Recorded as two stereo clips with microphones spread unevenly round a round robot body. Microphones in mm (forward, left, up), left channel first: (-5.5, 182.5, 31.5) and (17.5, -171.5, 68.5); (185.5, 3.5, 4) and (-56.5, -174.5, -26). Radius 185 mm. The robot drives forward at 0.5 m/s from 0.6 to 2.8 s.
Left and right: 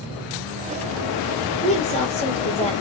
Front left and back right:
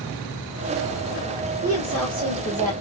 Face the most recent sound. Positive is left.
turn(degrees=165)